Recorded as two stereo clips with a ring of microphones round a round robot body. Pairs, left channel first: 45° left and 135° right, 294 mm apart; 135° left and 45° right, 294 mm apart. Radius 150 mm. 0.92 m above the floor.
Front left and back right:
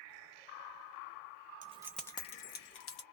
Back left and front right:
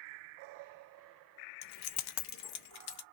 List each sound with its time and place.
1.6 s keys jangling: 160° left, 0.6 m; by 3.0 s 90° left, 1.0 m